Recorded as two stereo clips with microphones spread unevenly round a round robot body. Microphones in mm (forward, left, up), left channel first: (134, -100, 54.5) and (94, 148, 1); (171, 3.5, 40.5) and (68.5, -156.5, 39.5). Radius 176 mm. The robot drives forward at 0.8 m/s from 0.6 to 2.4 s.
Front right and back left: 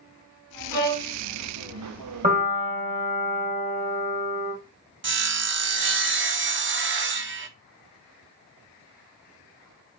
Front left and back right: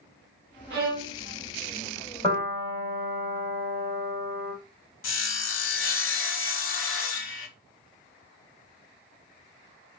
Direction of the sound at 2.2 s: 120° left.